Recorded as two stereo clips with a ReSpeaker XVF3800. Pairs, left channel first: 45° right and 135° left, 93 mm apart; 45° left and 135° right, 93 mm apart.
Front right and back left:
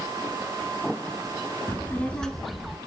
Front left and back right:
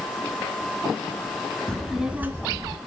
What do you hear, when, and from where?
1.7 s a child speaking: 25° right, 0.9 m; by 2.8 s 150° right, 1.1 m